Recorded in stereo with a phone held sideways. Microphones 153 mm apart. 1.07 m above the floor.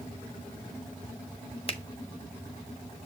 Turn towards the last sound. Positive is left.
turn(degrees=40)  # may be behind; listen again after turning